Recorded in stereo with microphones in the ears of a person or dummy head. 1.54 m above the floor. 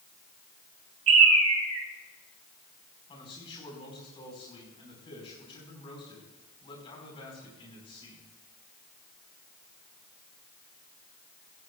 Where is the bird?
85° right, 2.5 m.